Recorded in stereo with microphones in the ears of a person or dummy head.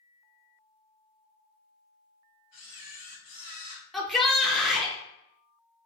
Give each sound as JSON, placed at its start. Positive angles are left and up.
{"t": 2.5, "sound": "a camera shutter", "side_deg": 20, "distance_m": 1.2}
{"t": 3.9, "sound": "a shout", "side_deg": 0, "distance_m": 0.6}